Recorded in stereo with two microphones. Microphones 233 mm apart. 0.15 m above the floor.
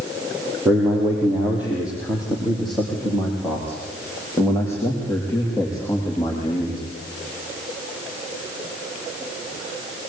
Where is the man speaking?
10° right (ahead or behind), 6.5 m; by 6.8 s 20° left (ahead or behind), 7.5 m.